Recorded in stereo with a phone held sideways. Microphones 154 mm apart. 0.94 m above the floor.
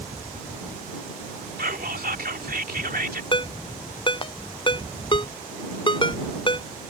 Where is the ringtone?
35° left (ahead or behind).